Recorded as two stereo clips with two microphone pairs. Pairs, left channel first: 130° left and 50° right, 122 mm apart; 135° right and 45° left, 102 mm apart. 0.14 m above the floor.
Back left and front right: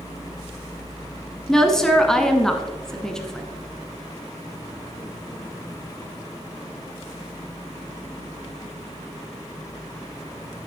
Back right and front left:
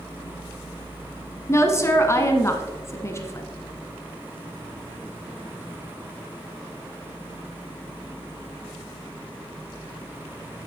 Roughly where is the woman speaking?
Behind right.